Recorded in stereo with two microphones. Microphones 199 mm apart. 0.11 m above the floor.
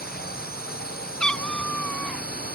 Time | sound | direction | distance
0.0 | a drone | 50° left (ahead or behind) | ?
1.2 | a cat meowing | 5° left (ahead or behind) | ?